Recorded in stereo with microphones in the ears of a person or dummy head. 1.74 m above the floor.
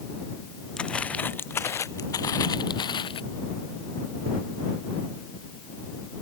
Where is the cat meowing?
I don't hear a cat meowing.